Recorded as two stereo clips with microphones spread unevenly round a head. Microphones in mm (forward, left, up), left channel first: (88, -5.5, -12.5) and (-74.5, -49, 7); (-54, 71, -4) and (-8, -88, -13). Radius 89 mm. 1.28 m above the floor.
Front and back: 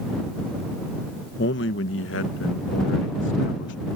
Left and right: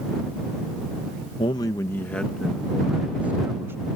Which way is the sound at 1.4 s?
40° left.